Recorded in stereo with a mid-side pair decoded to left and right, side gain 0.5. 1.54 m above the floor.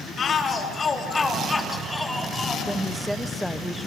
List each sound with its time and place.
0.2 s a shout: 45° left, 3.5 m; by 2.6 s 5° left, 4 m
2.7 s a woman speaking: straight ahead, 1.3 m